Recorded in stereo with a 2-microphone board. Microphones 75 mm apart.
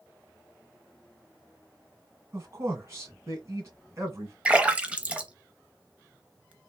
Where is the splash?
15° right (ahead or behind), 0.6 m.